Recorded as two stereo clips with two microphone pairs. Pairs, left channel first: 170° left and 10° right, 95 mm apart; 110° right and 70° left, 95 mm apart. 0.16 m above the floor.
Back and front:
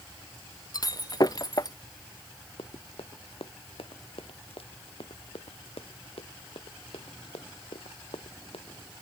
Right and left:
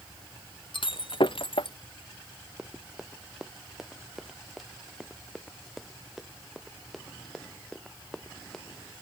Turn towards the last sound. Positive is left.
turn(degrees=165)